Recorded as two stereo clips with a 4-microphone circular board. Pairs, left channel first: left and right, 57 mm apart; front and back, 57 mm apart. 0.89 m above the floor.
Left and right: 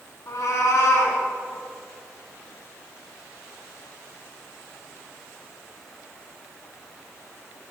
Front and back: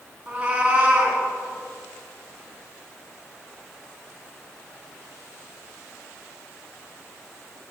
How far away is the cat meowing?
About 3 m.